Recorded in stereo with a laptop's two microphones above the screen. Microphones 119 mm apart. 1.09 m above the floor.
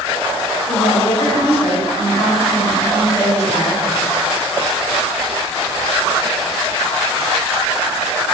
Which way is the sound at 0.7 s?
60° left (ahead or behind).